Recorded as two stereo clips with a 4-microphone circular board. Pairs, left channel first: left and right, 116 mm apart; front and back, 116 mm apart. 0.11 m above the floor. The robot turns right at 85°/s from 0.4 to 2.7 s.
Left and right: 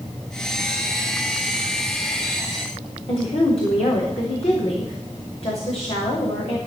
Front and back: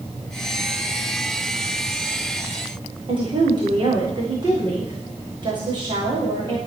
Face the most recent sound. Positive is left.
turn(degrees=125)